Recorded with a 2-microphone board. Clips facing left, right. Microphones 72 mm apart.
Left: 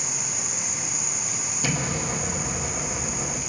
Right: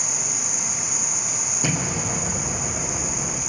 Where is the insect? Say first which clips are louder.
Right 2 dB; 80° right, 1.6 m.